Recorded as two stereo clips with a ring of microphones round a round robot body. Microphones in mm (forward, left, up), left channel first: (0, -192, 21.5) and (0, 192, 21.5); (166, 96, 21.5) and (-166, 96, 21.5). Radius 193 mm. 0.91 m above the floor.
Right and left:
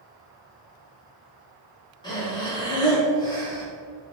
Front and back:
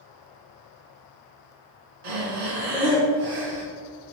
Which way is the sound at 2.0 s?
170° right.